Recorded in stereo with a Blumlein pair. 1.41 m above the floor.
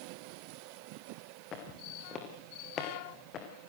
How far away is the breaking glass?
No breaking glass in this recording.